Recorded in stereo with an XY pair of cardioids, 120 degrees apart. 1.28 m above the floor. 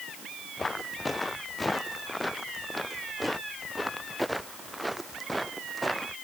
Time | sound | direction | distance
0.6 | footsteps | 20° left | ?